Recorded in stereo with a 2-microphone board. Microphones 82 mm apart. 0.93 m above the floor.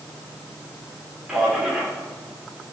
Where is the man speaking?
5° right (ahead or behind), 3 m.